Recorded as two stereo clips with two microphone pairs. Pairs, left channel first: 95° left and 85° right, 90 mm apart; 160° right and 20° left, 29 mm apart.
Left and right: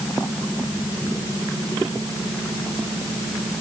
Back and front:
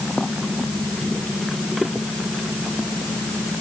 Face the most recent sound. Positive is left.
No sound to turn to.